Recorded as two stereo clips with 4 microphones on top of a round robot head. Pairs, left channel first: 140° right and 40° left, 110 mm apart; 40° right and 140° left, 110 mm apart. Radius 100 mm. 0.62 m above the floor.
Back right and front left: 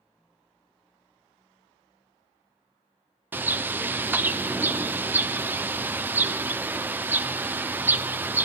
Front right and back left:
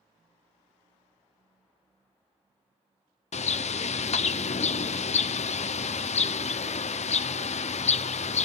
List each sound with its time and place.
3.3 s a bird: 35° right, 0.6 m